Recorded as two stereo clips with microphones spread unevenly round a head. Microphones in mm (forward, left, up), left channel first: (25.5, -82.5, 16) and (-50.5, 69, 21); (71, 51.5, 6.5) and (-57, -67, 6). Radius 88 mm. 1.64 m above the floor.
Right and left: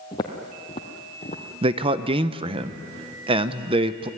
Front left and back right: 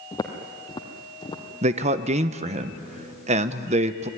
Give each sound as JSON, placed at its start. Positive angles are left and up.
{"t": 0.1, "sound": "footsteps", "azimuth_deg": -10, "distance_m": 1.9}
{"t": 1.6, "sound": "a man speaking", "azimuth_deg": 170, "distance_m": 0.9}